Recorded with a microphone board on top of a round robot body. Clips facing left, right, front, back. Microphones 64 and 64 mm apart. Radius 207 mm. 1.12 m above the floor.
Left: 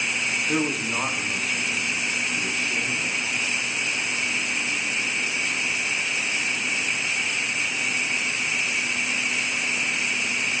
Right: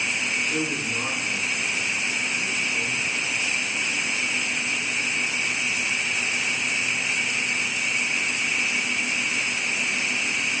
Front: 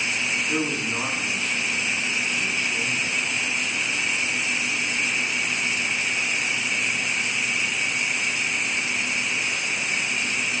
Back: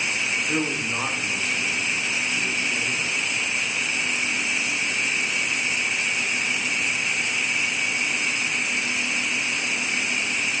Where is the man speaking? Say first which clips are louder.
Left 2 dB, even; 105° left, 1.6 m.